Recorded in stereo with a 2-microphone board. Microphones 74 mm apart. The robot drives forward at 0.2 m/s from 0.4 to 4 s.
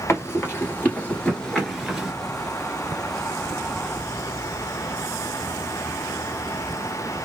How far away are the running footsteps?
About 1.6 m.